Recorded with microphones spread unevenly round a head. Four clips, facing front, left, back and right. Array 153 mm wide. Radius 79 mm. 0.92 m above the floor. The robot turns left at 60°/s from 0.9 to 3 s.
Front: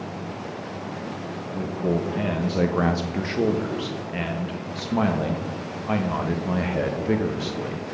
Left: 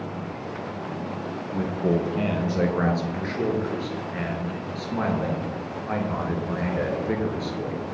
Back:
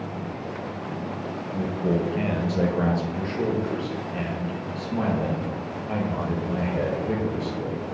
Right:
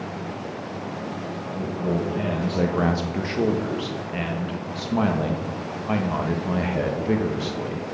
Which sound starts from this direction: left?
A man speaking, at 1.5 s.